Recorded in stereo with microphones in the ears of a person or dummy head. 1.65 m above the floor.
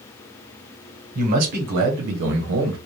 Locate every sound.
1.1 s a man speaking: 40° right (ahead or behind), 1.4 m; by 2.8 s 70° right (ahead or behind), 1.1 m